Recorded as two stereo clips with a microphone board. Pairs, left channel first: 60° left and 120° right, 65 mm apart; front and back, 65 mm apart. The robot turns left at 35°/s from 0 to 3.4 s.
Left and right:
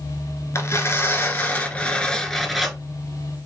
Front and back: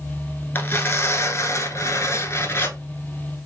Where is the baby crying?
No baby crying in this recording.